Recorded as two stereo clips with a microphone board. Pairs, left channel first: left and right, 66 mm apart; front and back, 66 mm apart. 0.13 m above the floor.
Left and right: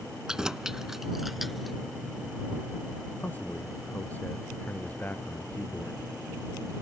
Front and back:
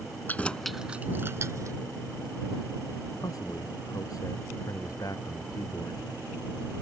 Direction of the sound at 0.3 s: 20° right.